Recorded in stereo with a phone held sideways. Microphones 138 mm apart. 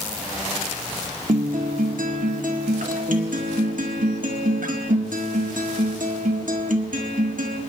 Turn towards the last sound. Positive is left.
turn(degrees=-75)  # may be behind; listen again after turning